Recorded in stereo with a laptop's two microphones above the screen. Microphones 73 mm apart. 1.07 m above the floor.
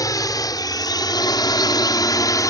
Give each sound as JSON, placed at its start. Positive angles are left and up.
{"t": 0.0, "sound": "a drone", "side_deg": 55}